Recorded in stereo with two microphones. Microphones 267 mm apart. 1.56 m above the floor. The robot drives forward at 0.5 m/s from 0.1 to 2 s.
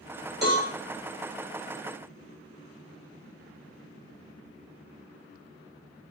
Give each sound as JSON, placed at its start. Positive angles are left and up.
{"t": 0.4, "sound": "a cowbell", "side_deg": -40, "distance_m": 2.5}